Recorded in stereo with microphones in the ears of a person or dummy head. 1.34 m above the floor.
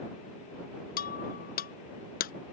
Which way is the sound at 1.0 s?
55° left (ahead or behind).